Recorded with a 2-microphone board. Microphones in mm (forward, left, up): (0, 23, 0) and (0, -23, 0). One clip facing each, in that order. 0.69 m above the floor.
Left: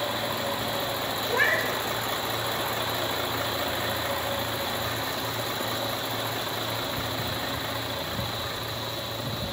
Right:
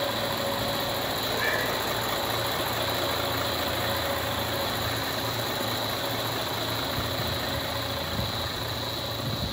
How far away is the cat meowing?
About 0.5 m.